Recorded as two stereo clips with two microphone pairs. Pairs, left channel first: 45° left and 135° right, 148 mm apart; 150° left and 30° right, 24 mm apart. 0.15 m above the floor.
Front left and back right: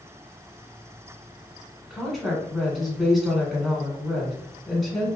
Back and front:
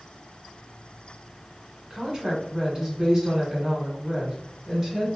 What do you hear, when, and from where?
1.9 s a woman speaking: 50° right, 1.3 m